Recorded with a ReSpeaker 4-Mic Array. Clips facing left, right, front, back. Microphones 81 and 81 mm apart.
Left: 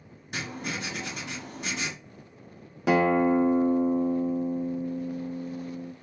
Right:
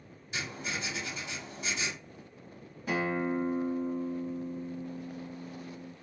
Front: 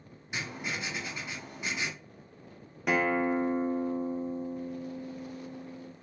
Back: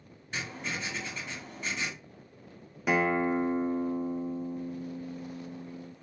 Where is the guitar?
95° left, 0.5 m.